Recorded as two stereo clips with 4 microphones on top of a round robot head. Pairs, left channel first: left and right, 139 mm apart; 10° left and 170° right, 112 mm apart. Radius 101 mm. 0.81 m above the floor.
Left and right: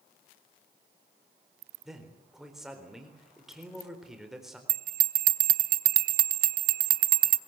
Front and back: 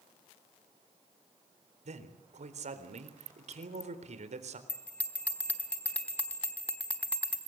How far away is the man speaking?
About 4 m.